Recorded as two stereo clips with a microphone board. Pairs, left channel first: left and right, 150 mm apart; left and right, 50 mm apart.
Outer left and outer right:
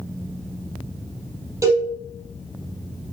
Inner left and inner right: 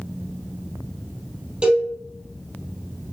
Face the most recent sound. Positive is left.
turn(degrees=-20)  # may be behind; listen again after turning